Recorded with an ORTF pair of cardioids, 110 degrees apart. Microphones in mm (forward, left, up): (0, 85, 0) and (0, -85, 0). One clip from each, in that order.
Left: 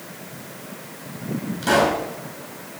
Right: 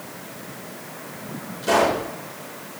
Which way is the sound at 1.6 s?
55° left.